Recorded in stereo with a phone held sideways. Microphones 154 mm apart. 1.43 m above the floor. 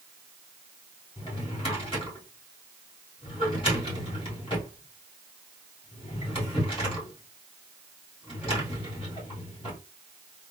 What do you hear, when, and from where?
1.2 s a drawer: 35° left (ahead or behind), 1.9 m